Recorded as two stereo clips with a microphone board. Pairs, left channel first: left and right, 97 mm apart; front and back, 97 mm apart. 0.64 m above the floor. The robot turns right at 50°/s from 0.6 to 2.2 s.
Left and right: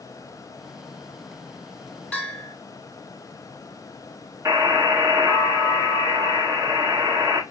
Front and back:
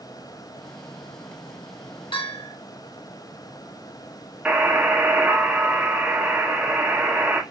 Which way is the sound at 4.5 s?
115° right.